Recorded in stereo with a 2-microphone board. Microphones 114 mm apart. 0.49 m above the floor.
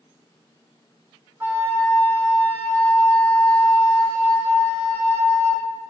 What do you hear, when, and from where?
1.4 s a flute: 20° right (ahead or behind), 1.2 m